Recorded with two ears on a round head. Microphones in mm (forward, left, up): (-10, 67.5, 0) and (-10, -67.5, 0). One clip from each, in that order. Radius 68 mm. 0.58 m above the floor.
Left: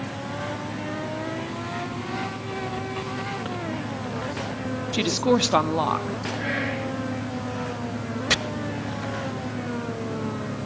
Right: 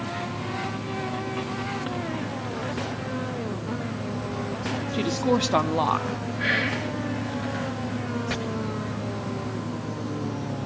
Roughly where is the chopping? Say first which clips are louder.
Left 11 dB; left.